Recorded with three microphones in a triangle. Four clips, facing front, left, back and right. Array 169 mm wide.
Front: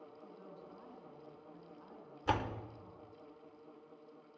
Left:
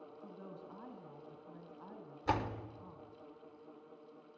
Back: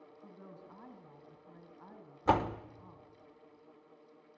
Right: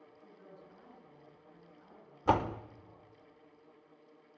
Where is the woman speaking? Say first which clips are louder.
Left 4 dB, back 3 dB; 125° left, 4.5 m.